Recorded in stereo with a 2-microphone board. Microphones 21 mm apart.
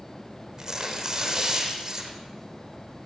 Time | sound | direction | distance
0.6 | tearing paper | 25° right (ahead or behind) | 5 m